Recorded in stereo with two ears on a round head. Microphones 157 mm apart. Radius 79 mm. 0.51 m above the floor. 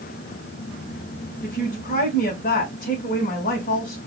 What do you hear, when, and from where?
1.4 s a woman speaking: 50° left (ahead or behind), 2 m